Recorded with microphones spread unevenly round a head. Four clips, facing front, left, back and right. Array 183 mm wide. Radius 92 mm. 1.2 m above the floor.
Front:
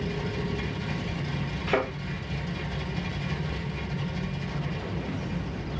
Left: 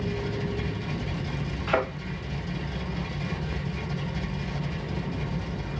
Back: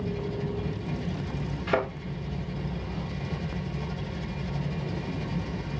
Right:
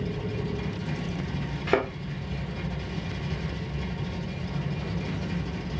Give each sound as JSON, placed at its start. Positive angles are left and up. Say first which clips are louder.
{"t": 1.7, "sound": "a thud", "louder": "right 1 dB, even", "azimuth_deg": -100, "distance_m": 1.4}